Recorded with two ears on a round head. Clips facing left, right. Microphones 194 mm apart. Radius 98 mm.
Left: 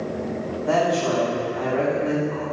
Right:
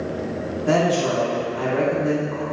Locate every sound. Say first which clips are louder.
0.7 s a woman speaking: right 2 dB; 30° right (ahead or behind), 2 m